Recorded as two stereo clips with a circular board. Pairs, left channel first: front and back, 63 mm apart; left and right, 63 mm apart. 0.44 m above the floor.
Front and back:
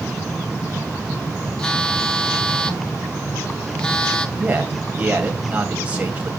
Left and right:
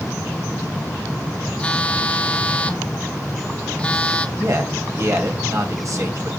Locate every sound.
1.6 s a phone buzzing: 50° left, 1.3 m
4.4 s a man speaking: 115° right, 2.5 m